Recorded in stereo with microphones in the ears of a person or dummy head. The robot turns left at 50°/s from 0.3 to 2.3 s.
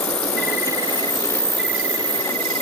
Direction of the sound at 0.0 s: 60° left.